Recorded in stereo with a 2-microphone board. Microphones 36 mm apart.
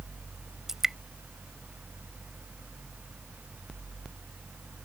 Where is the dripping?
15° right (ahead or behind).